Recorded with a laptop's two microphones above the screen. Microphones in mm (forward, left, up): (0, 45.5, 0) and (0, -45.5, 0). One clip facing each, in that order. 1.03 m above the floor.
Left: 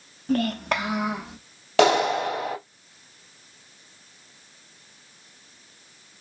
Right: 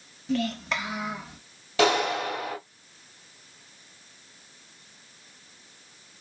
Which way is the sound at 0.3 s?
45° left (ahead or behind).